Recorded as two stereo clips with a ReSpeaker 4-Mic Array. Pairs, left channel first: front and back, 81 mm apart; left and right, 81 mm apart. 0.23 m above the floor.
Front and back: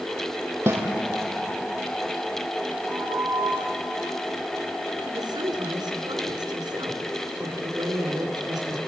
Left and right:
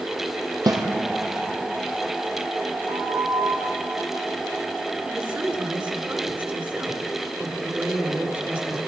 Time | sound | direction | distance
0.7 | a snare drum | 120° right | 3 m
2.9 | a flute | 110° right | 7 m
5.0 | a woman speaking | 160° right | 3.5 m